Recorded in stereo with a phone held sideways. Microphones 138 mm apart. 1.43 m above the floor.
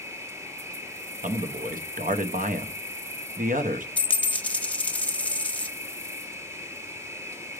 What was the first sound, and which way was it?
An insect, 20° right (ahead or behind).